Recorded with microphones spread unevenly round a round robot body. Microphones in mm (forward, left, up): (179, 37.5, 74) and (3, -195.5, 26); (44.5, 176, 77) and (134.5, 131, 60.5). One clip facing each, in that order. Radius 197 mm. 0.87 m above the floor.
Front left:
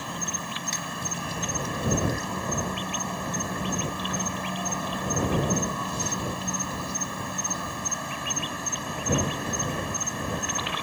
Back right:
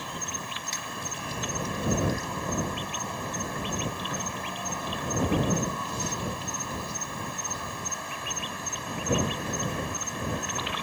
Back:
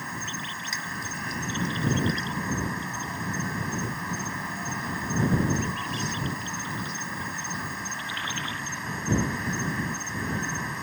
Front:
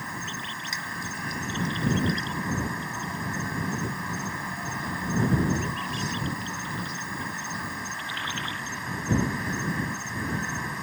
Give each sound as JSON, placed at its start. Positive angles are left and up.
{"t": 0.0, "sound": "an insect", "azimuth_deg": 65}